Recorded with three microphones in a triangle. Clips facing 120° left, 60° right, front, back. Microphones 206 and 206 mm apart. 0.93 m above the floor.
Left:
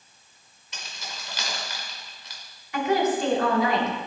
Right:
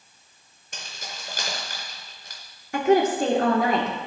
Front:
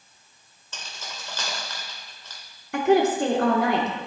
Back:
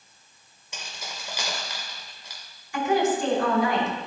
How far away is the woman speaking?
About 2.5 m.